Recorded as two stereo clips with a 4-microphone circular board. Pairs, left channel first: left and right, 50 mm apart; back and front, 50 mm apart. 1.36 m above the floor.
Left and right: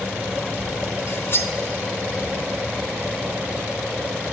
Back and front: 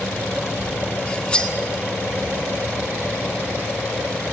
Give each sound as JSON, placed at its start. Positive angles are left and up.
{"t": 1.1, "sound": "cutlery clinking", "azimuth_deg": 115, "distance_m": 1.1}